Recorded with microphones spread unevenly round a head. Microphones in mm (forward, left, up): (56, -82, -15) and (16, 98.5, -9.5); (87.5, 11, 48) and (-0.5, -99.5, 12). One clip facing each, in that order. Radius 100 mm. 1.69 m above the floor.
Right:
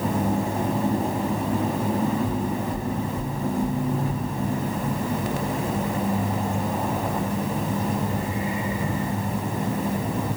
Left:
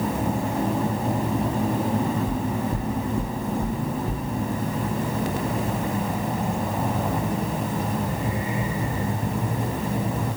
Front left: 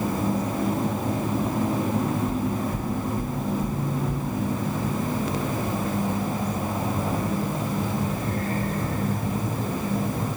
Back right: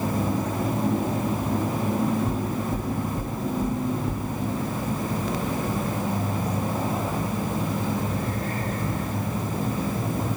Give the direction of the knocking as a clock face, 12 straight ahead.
6 o'clock.